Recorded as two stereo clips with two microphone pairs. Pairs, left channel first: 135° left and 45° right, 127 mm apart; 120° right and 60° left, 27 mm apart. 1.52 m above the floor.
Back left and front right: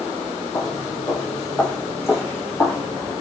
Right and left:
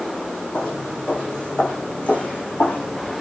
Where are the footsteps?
165° right, 4.5 m; by 3.1 s 155° right, 6 m.